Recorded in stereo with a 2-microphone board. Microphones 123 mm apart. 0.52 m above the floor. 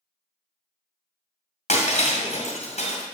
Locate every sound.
1.7 s breaking glass: 65° left (ahead or behind), 1.8 m